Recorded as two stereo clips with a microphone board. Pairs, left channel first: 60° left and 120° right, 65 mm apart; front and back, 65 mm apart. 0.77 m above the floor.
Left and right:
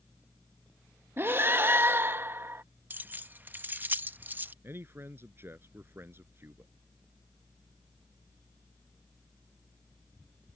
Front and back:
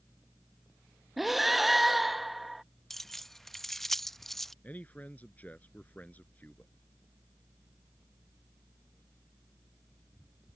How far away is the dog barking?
No dog barking in this recording.